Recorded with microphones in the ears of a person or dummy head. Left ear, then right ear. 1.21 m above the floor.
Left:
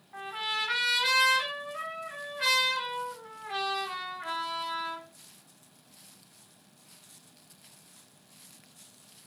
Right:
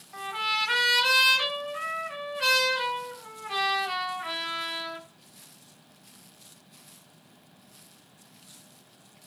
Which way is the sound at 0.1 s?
5° right (ahead or behind).